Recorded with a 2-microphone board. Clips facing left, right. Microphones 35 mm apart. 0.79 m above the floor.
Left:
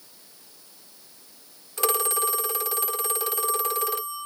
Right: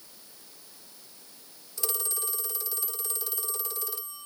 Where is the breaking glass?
I don't hear breaking glass.